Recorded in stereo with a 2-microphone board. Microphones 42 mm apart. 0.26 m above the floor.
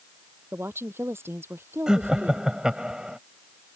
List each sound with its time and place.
0.5 s a woman speaking: 80° right
1.9 s laughter: 20° right (ahead or behind)